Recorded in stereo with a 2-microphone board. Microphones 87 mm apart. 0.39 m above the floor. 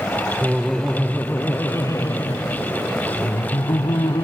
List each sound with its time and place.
0.4 s laughter: 5° right (ahead or behind); by 4.2 s 65° left (ahead or behind)